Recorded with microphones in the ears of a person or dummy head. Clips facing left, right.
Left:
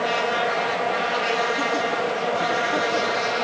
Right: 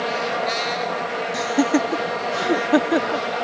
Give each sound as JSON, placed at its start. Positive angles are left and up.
{"t": 1.3, "sound": "laughter", "side_deg": -75, "distance_m": 0.5}